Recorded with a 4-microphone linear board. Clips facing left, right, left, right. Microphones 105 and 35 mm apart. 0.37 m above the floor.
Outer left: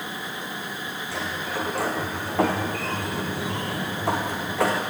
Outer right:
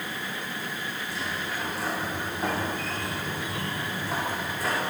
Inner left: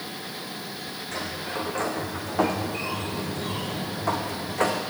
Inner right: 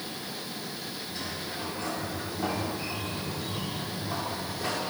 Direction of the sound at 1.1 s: 75° left (ahead or behind).